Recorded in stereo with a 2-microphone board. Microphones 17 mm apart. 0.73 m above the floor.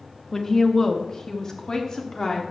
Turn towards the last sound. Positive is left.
turn(degrees=30)  # may be behind; listen again after turning